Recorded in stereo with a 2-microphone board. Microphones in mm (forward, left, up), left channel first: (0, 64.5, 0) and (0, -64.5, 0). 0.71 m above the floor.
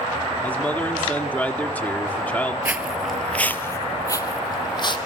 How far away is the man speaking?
About 1.6 m.